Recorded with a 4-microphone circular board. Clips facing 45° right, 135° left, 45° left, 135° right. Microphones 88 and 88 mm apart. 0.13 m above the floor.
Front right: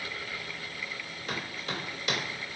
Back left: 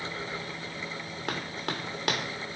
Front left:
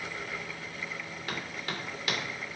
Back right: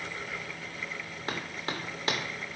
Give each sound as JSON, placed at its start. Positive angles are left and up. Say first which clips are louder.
{"t": 1.3, "sound": "running footsteps", "louder": "back left 2 dB, back right 2 dB", "azimuth_deg": 165, "distance_m": 1.4}